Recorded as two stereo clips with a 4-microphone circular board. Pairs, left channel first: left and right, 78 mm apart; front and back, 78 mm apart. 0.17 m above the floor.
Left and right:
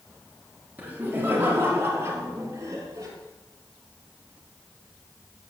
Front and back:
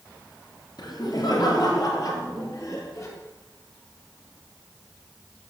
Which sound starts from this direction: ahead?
Laughter, at 0.8 s.